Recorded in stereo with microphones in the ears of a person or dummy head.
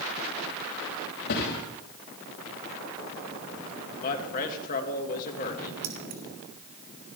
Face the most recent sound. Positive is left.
turn(degrees=-50)  # may be behind; listen again after turning